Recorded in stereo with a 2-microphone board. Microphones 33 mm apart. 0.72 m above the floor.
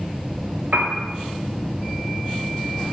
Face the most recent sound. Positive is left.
turn(degrees=-60)  # may be behind; listen again after turning